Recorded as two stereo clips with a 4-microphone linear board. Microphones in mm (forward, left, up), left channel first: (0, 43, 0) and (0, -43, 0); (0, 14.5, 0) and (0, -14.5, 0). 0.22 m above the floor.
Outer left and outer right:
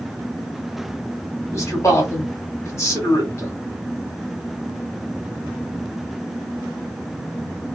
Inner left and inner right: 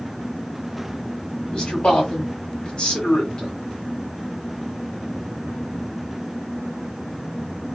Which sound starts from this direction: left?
A man speaking, at 1.5 s.